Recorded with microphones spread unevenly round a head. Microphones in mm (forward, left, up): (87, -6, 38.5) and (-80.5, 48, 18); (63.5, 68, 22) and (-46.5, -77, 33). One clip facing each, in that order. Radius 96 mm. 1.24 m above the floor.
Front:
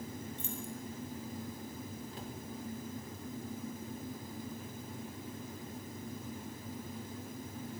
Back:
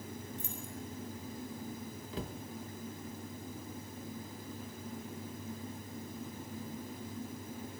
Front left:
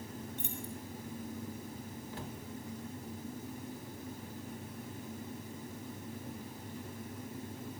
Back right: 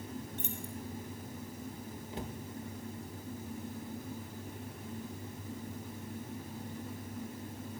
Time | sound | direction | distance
0.4 | keys jangling | 85° right | 5 m
2.1 | a cupboard door | 160° left | 2.0 m